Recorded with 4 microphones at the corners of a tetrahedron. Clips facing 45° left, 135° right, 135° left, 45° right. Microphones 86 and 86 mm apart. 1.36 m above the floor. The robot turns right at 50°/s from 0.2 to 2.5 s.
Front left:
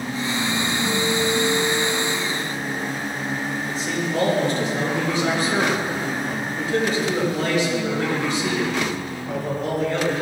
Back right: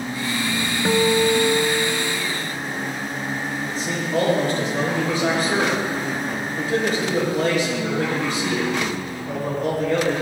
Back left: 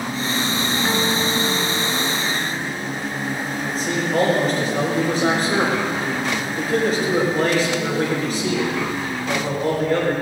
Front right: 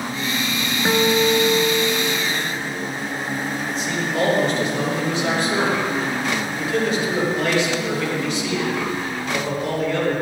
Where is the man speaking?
175° right, 5.5 m.